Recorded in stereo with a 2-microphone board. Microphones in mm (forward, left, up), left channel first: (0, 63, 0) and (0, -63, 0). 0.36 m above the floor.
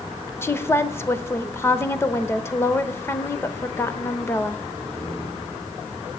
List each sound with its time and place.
0.4 s a woman speaking: 20° left (ahead or behind), 0.8 m